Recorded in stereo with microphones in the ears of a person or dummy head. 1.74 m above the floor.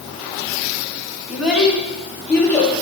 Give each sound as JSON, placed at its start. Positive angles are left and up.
{"t": 1.3, "sound": "a child speaking", "side_deg": -10, "distance_m": 2.5}